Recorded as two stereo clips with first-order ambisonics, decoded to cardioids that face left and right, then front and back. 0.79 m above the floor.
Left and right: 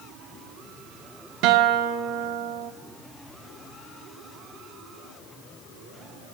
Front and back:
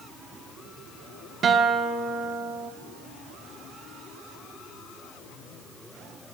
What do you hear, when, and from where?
1.4 s a guitar: 120° right, 0.8 m